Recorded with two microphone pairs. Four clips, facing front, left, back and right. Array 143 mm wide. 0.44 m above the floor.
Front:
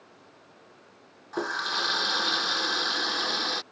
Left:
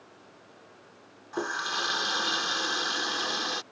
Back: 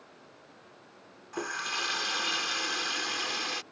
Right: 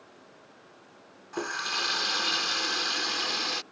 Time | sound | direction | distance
1.3 | a running tap | 15° left | ?